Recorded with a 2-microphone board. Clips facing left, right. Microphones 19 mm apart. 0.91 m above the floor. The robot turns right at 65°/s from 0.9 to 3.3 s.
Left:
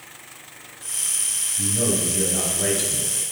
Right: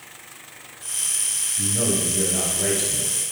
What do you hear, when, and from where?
1.6 s a man speaking: 80° right, 1.4 m; by 3.1 s 20° left, 1.4 m